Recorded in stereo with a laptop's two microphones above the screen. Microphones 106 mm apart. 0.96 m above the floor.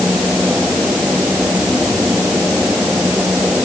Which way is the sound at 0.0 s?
10° right (ahead or behind).